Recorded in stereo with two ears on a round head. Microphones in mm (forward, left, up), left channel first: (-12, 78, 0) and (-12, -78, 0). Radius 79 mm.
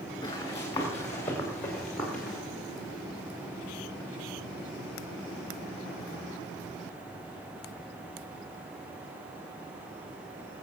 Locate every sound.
0.2 s running footsteps: 20° left (ahead or behind), 5 m; by 2.4 s centre (ahead or behind), 4.5 m